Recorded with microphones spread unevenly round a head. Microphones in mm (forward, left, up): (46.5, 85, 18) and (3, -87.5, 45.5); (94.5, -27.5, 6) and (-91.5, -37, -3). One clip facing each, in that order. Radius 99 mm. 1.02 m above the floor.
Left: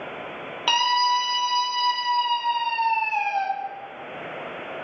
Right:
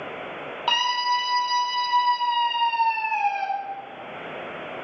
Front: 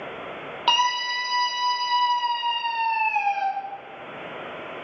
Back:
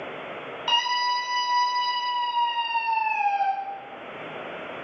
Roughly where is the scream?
Ahead left.